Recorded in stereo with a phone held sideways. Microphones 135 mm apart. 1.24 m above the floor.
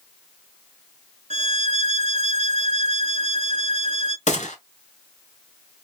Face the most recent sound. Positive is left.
turn(degrees=60)  # may be behind; listen again after turning